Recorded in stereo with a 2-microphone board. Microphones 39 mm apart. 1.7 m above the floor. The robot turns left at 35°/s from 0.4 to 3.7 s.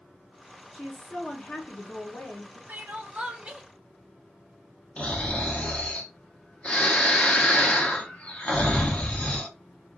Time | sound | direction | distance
0.7 | a woman speaking | 170° left | 0.7 m
2.7 | crying | 130° right | 0.7 m
5.0 | snoring | 30° left (ahead or behind) | 0.9 m